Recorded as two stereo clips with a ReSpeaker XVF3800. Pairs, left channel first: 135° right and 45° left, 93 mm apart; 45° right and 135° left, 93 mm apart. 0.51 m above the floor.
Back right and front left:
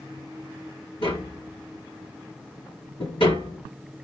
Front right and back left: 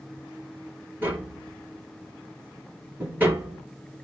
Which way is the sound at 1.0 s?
155° right.